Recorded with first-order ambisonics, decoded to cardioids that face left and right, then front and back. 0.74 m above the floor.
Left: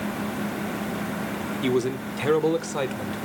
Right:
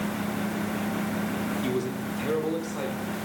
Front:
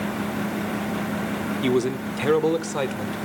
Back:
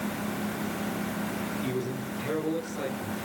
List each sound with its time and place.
1.6 s a man speaking: 30° left, 2 m; by 3.1 s 35° left, 3.5 m